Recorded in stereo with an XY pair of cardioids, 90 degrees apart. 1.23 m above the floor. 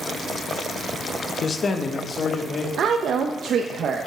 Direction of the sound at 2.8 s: 65° right.